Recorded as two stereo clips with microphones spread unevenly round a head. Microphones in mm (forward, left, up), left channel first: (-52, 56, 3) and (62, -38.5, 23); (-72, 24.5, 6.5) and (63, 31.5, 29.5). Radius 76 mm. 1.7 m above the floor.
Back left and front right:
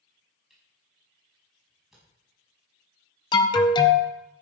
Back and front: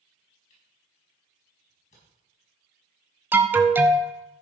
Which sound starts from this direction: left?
An alarm, at 3.3 s.